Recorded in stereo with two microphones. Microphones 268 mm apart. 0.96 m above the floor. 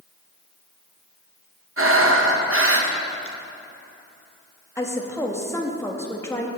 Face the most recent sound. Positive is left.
turn(degrees=10)  # may be behind; listen again after turning